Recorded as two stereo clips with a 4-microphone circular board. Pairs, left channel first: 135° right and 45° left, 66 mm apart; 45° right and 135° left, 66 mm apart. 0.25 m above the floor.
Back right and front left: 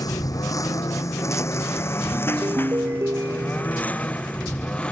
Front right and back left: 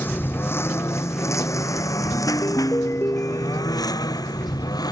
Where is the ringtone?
5° left.